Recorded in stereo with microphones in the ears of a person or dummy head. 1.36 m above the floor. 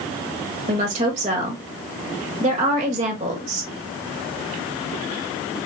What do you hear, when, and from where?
0.7 s a woman speaking: 40° right (ahead or behind), 1.7 m